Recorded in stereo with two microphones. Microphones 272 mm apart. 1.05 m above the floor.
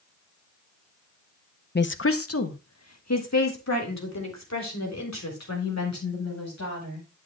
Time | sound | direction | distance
1.8 | a woman speaking | 40° left (ahead or behind) | 0.5 m